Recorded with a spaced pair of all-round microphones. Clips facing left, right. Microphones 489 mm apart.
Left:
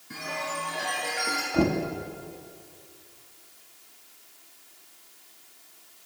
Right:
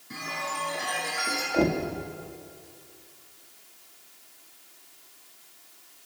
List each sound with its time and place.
0.1 s a chime: 5° left (ahead or behind), 8.5 m
1.5 s knocking: 30° left (ahead or behind), 2.0 m